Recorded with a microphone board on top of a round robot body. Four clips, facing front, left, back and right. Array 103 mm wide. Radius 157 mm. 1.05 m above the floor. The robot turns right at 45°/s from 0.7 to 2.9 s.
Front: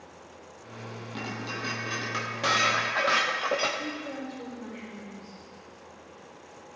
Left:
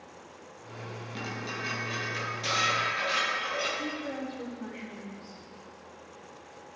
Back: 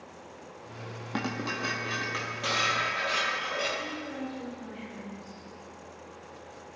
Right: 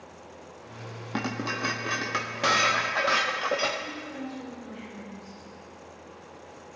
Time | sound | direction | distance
1.1 | dishes clattering | 130° right | 1.2 m
3.8 | a woman speaking | 70° left | 4.5 m